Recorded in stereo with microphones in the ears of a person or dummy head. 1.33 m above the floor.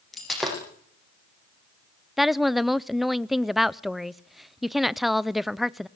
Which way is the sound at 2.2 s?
Centre (ahead or behind).